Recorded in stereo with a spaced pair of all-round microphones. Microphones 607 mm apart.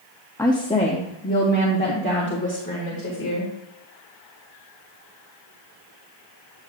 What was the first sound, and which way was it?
A woman speaking, 5° left (ahead or behind).